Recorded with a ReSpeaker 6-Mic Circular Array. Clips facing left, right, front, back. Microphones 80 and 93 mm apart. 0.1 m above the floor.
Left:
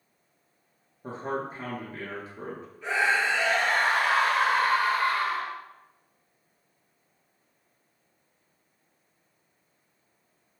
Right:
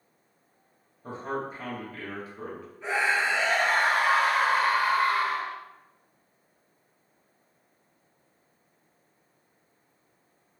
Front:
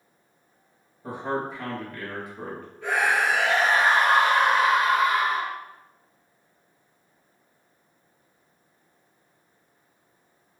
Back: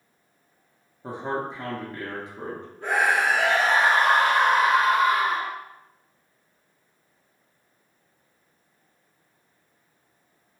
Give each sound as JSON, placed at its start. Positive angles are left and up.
{"t": 1.0, "sound": "a man speaking", "azimuth_deg": 130, "distance_m": 1.5}
{"t": 2.8, "sound": "a scream", "azimuth_deg": -150, "distance_m": 1.4}